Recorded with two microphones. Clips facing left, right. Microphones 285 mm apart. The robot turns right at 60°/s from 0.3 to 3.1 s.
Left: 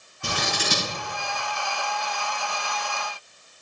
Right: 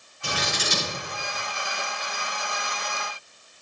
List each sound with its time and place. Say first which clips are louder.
0.2 s scissors: left 2 dB; 50° left (ahead or behind), 5.5 m; by 0.9 s 85° left, 5.5 m